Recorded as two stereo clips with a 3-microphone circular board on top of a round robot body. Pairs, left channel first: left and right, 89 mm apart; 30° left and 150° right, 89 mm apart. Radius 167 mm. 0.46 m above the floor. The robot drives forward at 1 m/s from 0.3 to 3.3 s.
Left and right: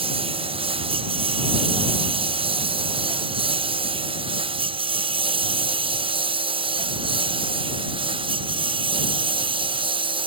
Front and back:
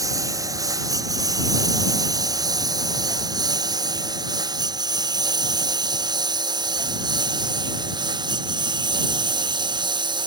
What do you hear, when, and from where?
0.0 s a lawn mower: 95° right; by 10.3 s 110° right